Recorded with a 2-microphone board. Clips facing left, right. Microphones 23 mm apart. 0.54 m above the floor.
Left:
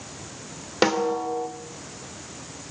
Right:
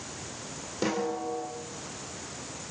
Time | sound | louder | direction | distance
0.8 | a snare drum | left 8 dB | 55° left (ahead or behind) | 2 m